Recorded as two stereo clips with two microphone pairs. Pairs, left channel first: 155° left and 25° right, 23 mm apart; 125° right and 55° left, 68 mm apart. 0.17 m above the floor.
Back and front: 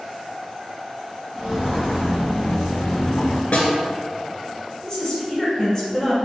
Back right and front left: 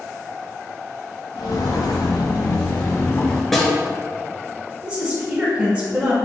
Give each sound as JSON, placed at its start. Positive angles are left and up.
{"t": 1.4, "sound": "footsteps", "azimuth_deg": -120, "distance_m": 1.0}
{"t": 3.5, "sound": "a snare drum", "azimuth_deg": 150, "distance_m": 0.8}
{"t": 4.8, "sound": "a woman speaking", "azimuth_deg": 115, "distance_m": 1.2}